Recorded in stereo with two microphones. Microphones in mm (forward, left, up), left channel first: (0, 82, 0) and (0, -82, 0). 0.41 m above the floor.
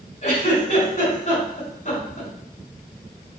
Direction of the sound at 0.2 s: 45° left (ahead or behind).